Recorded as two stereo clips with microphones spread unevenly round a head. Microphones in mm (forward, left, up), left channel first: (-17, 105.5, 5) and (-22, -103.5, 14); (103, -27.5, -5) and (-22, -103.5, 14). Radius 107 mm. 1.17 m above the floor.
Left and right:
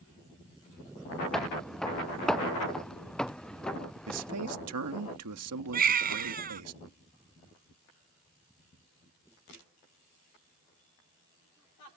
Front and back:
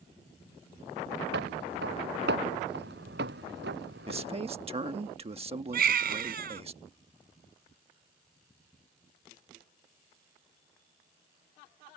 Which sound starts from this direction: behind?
Footsteps, at 1.3 s.